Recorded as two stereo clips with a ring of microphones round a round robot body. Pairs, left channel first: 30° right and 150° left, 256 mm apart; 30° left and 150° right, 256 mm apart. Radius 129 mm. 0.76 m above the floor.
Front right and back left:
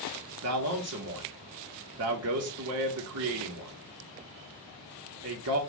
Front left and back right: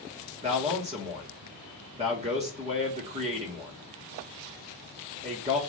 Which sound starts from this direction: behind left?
A man speaking, at 0.4 s.